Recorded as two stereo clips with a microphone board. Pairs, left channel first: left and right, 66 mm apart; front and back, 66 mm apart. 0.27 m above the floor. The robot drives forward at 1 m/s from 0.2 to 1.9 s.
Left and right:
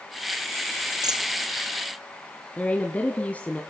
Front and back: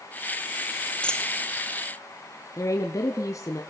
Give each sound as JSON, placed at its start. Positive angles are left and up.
{"t": 1.0, "sound": "a dropped coin", "azimuth_deg": -75, "distance_m": 1.3}
{"t": 2.6, "sound": "a woman speaking", "azimuth_deg": 25, "distance_m": 1.9}